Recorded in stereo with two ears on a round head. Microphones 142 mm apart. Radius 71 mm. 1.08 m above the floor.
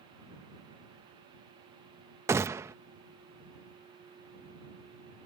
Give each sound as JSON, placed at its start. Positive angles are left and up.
{"t": 2.3, "sound": "a gunshot", "side_deg": -20}